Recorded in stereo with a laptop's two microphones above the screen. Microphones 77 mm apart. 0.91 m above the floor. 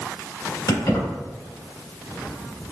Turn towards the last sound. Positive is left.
turn(degrees=70)  # may be behind; listen again after turning